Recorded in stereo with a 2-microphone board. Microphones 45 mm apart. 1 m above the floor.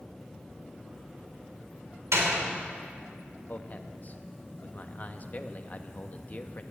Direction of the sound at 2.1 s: 85° right.